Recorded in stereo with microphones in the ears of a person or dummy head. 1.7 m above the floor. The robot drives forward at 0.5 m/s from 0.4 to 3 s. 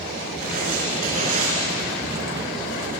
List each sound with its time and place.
0.4 s writing: 45° right (ahead or behind), 5 m; by 1.6 s 40° right (ahead or behind), 5.5 m